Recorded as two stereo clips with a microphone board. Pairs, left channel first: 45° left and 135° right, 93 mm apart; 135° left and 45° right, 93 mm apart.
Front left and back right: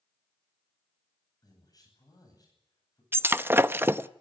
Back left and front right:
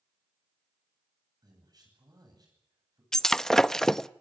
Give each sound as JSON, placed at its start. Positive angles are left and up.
{"t": 1.4, "sound": "a man speaking", "azimuth_deg": 0, "distance_m": 9.5}
{"t": 3.1, "sound": "breaking glass", "azimuth_deg": -145, "distance_m": 0.5}